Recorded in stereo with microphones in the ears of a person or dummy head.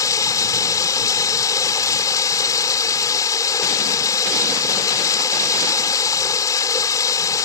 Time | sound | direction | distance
0.0 | running water | 20° left (ahead or behind) | ?